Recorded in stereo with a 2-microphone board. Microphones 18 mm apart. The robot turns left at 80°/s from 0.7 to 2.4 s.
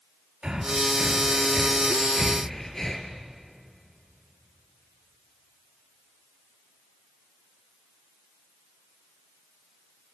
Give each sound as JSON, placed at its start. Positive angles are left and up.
{"t": 0.4, "sound": "breathing", "side_deg": -65, "distance_m": 3.0}